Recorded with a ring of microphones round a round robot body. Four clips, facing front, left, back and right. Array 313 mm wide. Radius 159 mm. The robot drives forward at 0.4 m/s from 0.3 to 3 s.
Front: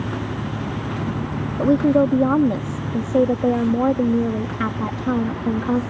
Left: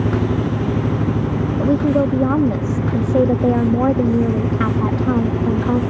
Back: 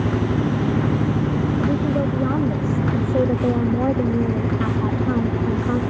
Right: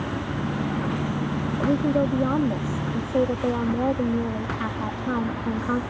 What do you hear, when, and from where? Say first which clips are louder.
0.0 s an engine running: left 9 dB, back 6 dB; 110° left; by 5.9 s 115° left
1.6 s a woman speaking: left 6 dB, front 9 dB; 30° left; by 5.8 s 65° left